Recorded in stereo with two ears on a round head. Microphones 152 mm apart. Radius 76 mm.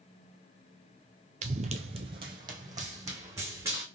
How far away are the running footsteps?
About 0.5 m.